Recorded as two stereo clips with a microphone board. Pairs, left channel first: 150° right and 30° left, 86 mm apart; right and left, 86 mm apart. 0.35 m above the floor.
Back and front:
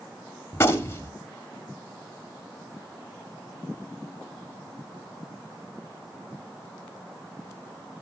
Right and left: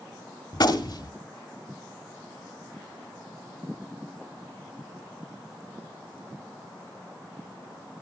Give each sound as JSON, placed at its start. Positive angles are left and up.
{"t": 0.5, "sound": "a gunshot", "azimuth_deg": -95, "distance_m": 1.1}